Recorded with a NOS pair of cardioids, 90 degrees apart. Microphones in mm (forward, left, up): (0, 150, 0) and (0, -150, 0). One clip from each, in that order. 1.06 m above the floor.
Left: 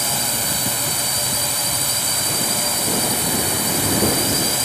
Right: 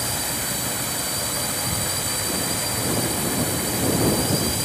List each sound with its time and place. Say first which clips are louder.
0.0 s a drone: left 5 dB; 40° left